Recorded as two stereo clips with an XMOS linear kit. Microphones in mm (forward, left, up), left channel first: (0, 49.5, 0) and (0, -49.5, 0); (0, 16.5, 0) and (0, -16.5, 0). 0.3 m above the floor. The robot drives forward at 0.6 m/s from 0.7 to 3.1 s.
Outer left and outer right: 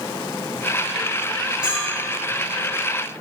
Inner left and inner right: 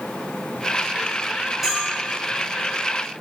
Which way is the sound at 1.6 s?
10° right (ahead or behind).